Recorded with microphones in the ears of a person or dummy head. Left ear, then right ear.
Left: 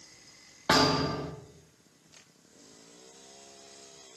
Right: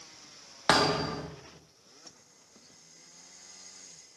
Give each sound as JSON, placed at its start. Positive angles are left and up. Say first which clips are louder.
{"t": 0.7, "sound": "a thud", "louder": "even", "side_deg": -40, "distance_m": 0.7}